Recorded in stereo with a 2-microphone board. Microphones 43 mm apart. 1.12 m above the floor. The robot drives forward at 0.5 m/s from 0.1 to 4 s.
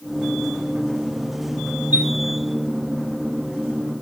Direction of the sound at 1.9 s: 55° right (ahead or behind).